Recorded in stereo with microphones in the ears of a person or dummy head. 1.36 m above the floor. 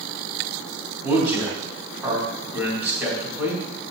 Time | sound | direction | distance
1.0 | a man speaking | 15° right (ahead or behind) | 4 m